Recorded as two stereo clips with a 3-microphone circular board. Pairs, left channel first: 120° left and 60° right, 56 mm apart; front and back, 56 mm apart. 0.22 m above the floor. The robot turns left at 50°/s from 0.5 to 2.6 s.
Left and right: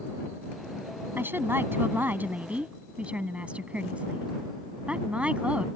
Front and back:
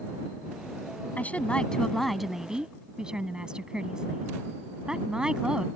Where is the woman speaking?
40° right; by 5.7 s 115° right.